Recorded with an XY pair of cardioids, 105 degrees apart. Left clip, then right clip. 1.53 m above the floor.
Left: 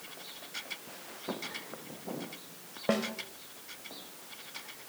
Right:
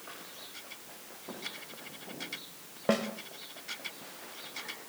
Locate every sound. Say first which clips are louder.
1.3 s footsteps: left 3 dB; 50° left, 5 m
2.9 s a snare drum: right 1 dB; 10° right, 3.5 m